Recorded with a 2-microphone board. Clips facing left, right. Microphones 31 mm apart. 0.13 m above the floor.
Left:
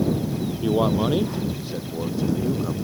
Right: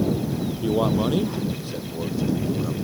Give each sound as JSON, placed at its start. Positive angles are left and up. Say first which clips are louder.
{"t": 0.6, "sound": "a man speaking", "louder": "left 1 dB", "side_deg": 5}